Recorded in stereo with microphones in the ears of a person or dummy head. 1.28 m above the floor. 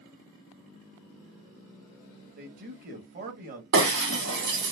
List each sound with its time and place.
2.4 s a man speaking: 40° right (ahead or behind), 1.1 m
3.7 s breaking glass: 60° right (ahead or behind), 1.6 m